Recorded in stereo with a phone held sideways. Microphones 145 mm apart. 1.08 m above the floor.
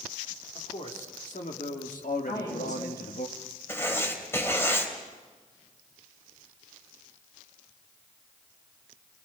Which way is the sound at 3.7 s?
15° left (ahead or behind).